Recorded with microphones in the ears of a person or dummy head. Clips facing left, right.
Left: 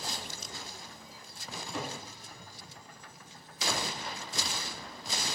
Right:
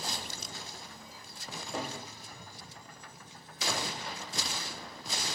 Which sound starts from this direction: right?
A cupboard door, at 1.5 s.